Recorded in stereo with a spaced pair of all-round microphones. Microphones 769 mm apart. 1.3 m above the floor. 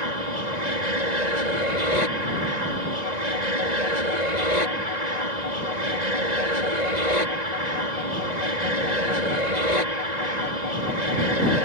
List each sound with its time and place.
0.0 s an aircraft: 60° right (ahead or behind)